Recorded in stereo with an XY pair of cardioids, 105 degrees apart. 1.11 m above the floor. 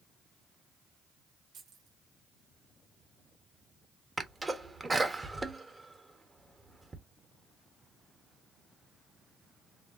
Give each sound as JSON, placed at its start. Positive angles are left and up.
{"t": 1.5, "sound": "keys jangling", "azimuth_deg": -70, "distance_m": 2.0}
{"t": 4.2, "sound": "a sneeze", "azimuth_deg": -20, "distance_m": 1.5}